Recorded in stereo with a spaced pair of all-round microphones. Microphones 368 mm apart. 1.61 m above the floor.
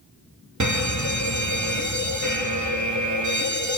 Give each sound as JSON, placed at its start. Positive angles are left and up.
{"t": 0.6, "sound": "a fire alarm", "side_deg": -50, "distance_m": 1.4}